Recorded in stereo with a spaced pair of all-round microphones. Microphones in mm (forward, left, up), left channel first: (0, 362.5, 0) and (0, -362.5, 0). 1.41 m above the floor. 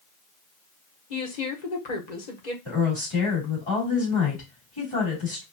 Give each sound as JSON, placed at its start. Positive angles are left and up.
{"t": 1.1, "sound": "a woman speaking", "side_deg": 75, "distance_m": 1.1}
{"t": 2.6, "sound": "a woman speaking", "side_deg": 45, "distance_m": 3.0}